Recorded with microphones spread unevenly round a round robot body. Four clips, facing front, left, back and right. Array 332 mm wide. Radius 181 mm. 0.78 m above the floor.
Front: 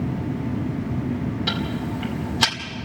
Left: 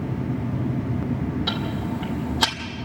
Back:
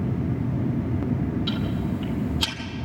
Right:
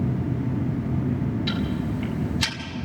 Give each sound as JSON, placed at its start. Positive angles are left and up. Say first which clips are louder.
{"t": 1.5, "sound": "ticking", "louder": "even, even", "azimuth_deg": 50, "distance_m": 2.5}